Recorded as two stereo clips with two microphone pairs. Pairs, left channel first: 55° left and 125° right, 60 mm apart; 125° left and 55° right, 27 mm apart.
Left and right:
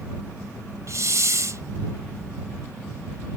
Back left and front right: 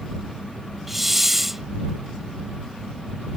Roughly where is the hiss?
Behind right.